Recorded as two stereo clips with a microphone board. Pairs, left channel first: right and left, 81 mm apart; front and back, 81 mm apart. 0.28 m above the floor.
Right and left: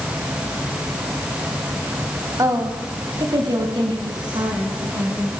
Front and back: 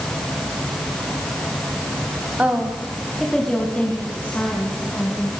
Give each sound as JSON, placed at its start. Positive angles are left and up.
{"t": 2.4, "sound": "a woman speaking", "azimuth_deg": 115, "distance_m": 2.0}